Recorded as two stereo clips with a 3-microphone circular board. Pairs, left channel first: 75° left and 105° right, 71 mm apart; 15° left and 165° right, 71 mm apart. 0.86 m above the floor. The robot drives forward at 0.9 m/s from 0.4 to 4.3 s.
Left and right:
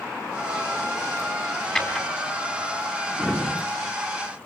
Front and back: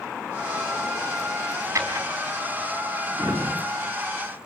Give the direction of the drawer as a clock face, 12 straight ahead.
7 o'clock.